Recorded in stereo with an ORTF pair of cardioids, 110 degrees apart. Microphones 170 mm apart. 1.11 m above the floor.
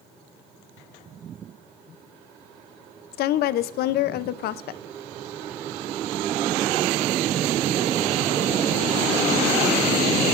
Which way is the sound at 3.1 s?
70° left.